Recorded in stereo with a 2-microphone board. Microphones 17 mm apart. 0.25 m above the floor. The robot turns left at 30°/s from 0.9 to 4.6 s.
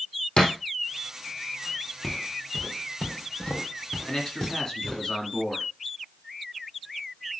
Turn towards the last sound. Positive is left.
turn(degrees=35)  # may be behind; listen again after turning